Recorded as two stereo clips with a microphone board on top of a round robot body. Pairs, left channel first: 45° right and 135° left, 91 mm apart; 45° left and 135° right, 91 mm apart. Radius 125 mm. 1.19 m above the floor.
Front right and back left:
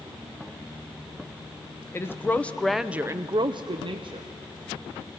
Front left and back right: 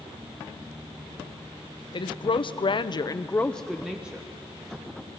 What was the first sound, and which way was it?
A woman speaking, 15° left.